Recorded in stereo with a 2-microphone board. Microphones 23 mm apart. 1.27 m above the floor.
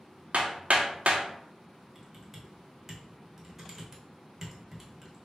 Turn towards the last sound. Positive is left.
turn(degrees=-15)  # may be behind; listen again after turning